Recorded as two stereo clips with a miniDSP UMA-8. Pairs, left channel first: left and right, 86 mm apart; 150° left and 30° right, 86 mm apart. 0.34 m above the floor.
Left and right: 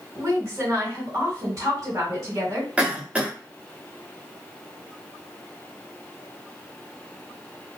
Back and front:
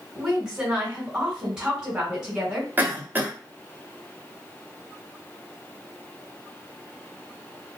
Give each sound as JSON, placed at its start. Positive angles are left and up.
{"t": 0.1, "sound": "a woman speaking", "azimuth_deg": -100, "distance_m": 1.9}
{"t": 2.8, "sound": "a cough", "azimuth_deg": -40, "distance_m": 0.9}